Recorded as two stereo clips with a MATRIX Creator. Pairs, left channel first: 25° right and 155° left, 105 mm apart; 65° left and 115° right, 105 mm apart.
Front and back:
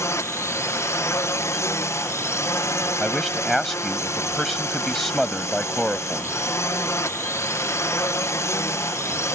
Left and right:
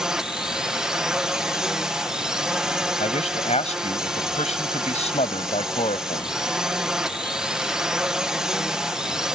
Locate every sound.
0.0 s a drone: 35° right
3.0 s a man speaking: 65° left